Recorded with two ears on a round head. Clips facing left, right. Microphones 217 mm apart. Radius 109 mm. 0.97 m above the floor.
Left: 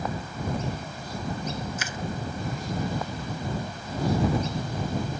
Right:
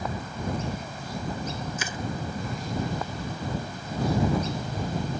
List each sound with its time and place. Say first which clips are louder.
1.8 s crushing: right 1 dB; 80° right